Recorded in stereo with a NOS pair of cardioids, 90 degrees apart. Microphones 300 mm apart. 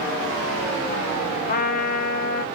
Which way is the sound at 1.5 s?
30° left.